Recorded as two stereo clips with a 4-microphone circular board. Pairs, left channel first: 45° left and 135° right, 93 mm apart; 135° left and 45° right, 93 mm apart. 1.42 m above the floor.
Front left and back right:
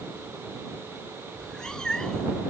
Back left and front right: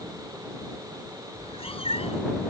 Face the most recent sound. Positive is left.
turn(degrees=130)